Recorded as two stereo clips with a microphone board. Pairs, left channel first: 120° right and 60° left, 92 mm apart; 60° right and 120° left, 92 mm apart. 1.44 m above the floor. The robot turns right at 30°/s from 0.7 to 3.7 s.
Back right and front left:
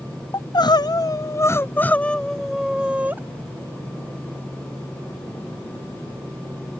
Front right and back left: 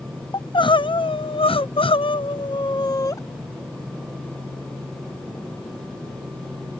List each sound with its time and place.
0.3 s crying: 85° right; by 3.2 s 10° right